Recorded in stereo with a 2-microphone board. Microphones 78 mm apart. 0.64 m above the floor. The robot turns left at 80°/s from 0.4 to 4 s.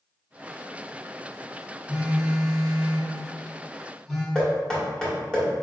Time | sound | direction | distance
1.9 | a phone buzzing | 10° right | 1.7 m
4.3 | knocking | 5° left (ahead or behind) | 1.4 m